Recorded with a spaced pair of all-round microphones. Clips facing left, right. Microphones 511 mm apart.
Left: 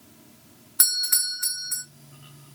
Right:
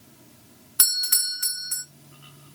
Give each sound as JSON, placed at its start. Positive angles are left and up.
{"t": 0.8, "sound": "a doorbell", "side_deg": -55, "distance_m": 0.7}